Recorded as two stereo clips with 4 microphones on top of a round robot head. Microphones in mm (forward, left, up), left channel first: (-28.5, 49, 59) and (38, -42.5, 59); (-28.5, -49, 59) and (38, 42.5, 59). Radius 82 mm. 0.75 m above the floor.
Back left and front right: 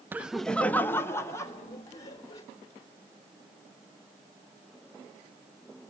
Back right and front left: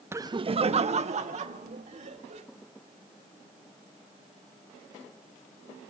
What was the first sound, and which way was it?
Laughter, 5° left.